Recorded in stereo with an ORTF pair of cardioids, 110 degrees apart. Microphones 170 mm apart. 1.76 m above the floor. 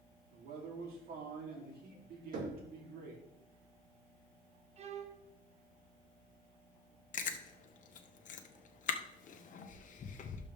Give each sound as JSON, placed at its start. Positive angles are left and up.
{"t": 0.3, "sound": "a man speaking", "azimuth_deg": -65, "distance_m": 3.5}
{"t": 2.3, "sound": "knocking", "azimuth_deg": -55, "distance_m": 3.0}
{"t": 4.8, "sound": "a violin", "azimuth_deg": -40, "distance_m": 1.1}
{"t": 7.1, "sound": "chewing", "azimuth_deg": 50, "distance_m": 1.1}